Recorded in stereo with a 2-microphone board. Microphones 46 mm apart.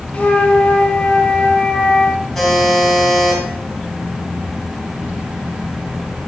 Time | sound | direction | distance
0.1 | a flute | 35° left (ahead or behind) | 1.1 m
2.4 | a buzzer | 5° left (ahead or behind) | 3 m